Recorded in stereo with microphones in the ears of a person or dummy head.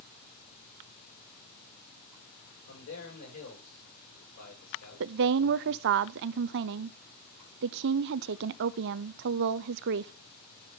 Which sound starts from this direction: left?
A man speaking, at 2.7 s.